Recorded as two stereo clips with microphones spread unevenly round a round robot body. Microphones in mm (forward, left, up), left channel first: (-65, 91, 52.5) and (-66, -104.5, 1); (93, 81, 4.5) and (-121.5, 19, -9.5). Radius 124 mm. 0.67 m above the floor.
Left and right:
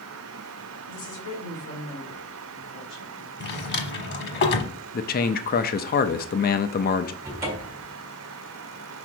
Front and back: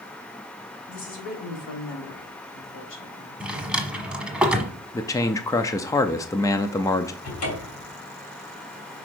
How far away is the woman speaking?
About 3 m.